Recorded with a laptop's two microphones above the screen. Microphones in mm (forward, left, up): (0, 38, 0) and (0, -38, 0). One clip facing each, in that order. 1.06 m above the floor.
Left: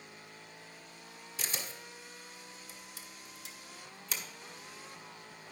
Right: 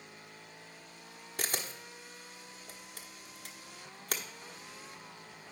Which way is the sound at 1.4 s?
55° right (ahead or behind).